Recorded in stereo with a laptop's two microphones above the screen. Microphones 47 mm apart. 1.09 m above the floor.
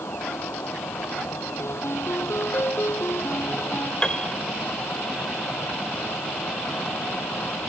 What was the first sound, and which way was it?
A fan, 80° left.